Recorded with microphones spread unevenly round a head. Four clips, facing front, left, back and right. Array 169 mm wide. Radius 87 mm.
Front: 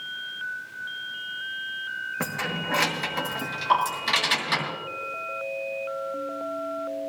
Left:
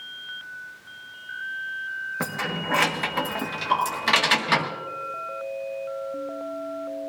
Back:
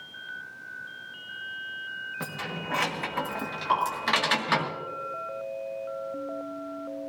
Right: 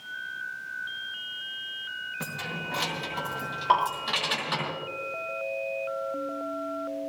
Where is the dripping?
95° right, 6.5 m.